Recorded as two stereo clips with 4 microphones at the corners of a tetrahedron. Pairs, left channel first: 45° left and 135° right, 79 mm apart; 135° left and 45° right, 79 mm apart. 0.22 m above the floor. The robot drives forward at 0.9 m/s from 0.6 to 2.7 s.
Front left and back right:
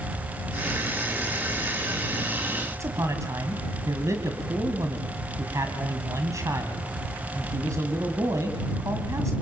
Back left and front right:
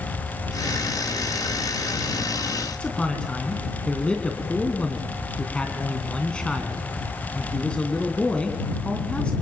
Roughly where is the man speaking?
Behind right.